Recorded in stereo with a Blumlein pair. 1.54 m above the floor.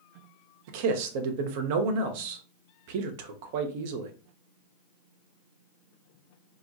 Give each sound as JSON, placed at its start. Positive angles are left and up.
{"t": 0.7, "sound": "a man speaking", "azimuth_deg": -50, "distance_m": 0.6}